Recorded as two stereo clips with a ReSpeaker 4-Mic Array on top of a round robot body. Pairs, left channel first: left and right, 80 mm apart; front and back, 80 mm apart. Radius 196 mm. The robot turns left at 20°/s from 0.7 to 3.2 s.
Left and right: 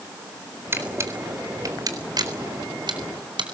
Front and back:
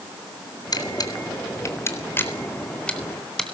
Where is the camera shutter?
30° right, 4 m; by 3.4 s 80° right, 4 m.